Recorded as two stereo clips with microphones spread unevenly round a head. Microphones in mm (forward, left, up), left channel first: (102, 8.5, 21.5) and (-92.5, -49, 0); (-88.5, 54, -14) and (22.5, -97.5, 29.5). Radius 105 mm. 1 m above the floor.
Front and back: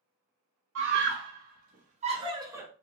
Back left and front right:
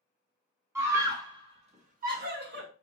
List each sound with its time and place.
0.8 s a scream: 135° right, 1.5 m; by 2.7 s 85° right, 1.2 m